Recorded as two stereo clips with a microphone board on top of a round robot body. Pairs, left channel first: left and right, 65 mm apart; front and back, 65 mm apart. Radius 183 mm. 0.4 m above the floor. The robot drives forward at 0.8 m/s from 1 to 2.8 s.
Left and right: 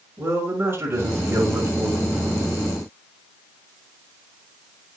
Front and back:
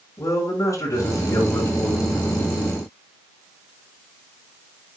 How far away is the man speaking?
About 6 m.